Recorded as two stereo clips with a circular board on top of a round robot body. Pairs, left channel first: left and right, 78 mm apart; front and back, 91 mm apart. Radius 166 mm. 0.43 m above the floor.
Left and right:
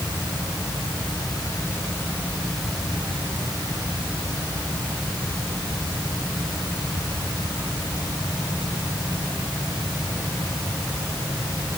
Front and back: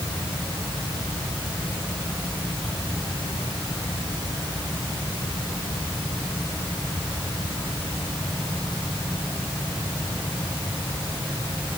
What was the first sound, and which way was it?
Only background noise.